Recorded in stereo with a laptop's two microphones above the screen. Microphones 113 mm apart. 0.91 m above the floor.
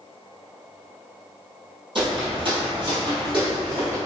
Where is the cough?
I don't hear a cough.